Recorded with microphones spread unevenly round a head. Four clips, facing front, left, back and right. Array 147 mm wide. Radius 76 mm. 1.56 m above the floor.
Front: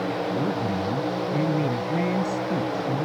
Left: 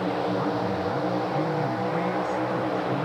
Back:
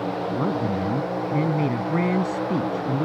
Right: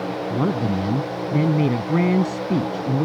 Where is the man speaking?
105° right.